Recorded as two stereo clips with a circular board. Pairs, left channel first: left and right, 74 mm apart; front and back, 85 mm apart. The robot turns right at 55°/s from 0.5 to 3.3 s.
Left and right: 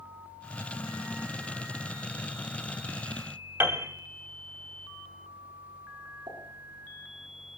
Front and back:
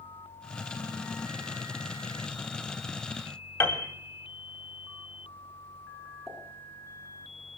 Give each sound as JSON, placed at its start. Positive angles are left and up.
{"t": 3.6, "sound": "a piano", "azimuth_deg": -50, "distance_m": 1.8}
{"t": 6.3, "sound": "a pop", "azimuth_deg": -90, "distance_m": 9.0}